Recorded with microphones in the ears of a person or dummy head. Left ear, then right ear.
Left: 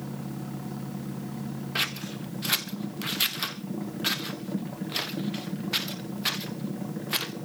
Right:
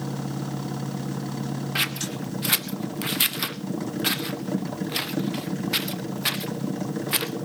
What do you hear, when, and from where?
0.0 s a machine running: 70° right (ahead or behind), 1.0 m
1.8 s scissors: 5° right (ahead or behind), 0.7 m